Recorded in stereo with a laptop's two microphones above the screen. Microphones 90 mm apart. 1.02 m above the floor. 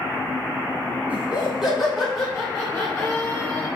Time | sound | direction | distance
1.1 | laughter | 15° right (ahead or behind) | 3 m